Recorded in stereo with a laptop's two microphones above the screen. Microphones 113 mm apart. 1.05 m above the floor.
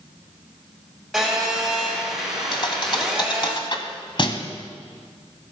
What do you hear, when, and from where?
1.1 s a phone buzzing: centre (ahead or behind), 4 m
2.5 s a thud: 45° left (ahead or behind), 1.3 m